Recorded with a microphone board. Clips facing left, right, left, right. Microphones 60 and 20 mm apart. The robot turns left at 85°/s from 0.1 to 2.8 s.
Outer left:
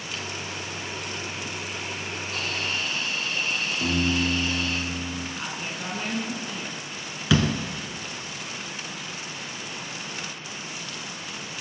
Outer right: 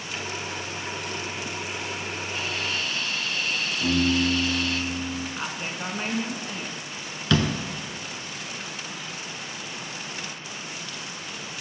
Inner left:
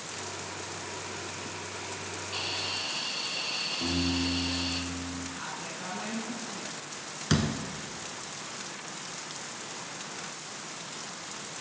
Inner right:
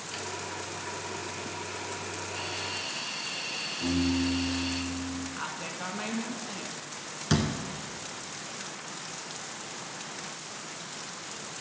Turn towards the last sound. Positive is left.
turn(degrees=5)  # may be behind; listen again after turning